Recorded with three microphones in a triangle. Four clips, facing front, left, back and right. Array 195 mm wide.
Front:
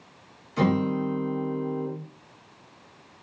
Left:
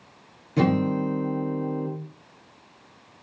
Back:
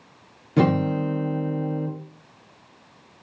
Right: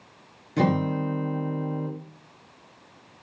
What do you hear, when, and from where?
0.6 s a guitar: 175° left, 4 m